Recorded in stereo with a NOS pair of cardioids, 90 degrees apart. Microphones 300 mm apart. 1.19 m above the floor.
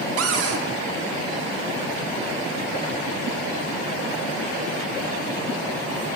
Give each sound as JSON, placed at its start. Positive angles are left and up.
{"t": 0.2, "sound": "a cupboard door", "azimuth_deg": -55, "distance_m": 0.5}